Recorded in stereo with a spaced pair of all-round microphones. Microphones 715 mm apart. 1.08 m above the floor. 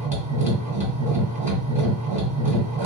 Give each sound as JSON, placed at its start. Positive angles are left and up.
{"t": 0.0, "sound": "a machine running", "side_deg": -10, "distance_m": 1.6}